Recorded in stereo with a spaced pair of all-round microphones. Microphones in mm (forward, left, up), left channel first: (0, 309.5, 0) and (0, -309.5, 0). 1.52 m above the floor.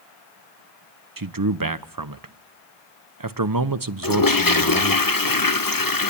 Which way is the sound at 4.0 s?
35° left (ahead or behind).